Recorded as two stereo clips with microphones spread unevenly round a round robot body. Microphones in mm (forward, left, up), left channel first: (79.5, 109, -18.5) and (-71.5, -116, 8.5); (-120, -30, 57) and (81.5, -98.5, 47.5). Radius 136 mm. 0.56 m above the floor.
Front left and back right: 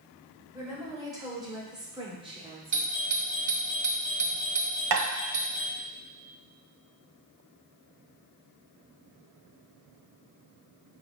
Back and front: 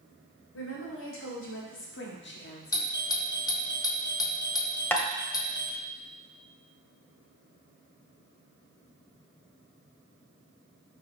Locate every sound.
0.5 s a woman speaking: 155° left, 2 m; by 2.9 s 170° left, 1.2 m
2.7 s a doorbell: 150° right, 1.2 m
4.9 s tapping: 120° right, 1.3 m